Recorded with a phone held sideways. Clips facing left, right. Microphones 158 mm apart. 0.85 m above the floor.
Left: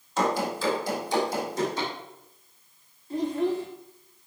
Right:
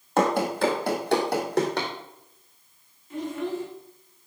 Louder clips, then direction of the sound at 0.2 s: Right 4 dB; 60° right (ahead or behind).